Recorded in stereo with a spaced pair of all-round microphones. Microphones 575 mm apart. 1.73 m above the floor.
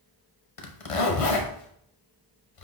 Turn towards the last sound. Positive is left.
turn(degrees=65)  # may be behind; listen again after turning